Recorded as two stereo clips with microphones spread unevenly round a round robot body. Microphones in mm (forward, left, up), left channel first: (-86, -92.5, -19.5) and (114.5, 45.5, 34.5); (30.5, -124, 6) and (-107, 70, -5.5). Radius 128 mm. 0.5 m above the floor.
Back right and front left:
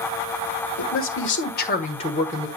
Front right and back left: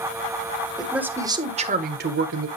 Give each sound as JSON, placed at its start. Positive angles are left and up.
{"t": 0.8, "sound": "a man speaking", "azimuth_deg": -145, "distance_m": 1.6}